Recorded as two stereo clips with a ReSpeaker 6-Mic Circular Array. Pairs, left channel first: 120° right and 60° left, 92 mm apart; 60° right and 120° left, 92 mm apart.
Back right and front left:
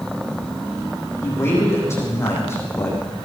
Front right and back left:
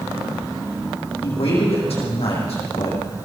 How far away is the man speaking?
About 8.5 m.